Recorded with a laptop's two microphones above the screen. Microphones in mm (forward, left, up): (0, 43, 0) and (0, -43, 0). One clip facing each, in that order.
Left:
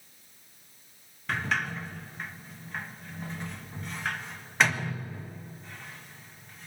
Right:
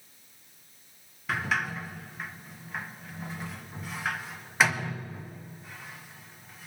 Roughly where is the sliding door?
Centre.